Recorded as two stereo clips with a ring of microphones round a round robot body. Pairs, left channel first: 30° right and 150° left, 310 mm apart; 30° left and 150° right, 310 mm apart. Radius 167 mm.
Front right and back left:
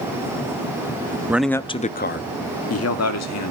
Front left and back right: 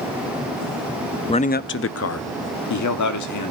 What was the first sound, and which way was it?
A man speaking, 80° left.